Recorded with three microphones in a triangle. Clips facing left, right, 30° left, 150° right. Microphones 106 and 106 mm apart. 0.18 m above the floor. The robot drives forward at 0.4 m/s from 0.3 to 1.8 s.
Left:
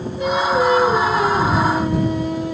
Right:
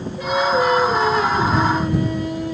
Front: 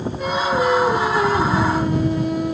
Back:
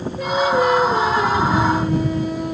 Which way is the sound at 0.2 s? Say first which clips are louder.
Left 1 dB, back 3 dB; 55° left.